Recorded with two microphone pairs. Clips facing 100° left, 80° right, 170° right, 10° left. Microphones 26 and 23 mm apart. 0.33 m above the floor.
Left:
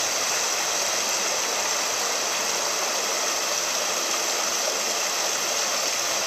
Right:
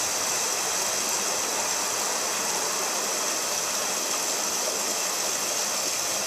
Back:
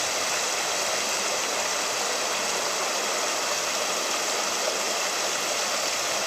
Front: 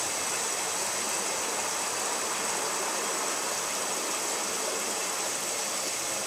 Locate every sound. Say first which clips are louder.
0.0 s running water: left 3 dB, back 5 dB; 160° left, 0.9 m